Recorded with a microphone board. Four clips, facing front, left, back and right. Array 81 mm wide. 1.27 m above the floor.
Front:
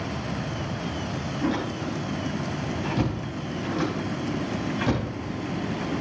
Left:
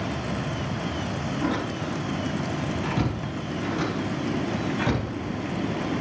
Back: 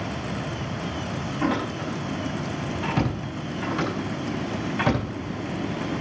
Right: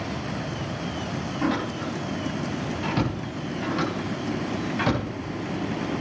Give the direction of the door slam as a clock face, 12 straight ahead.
5 o'clock.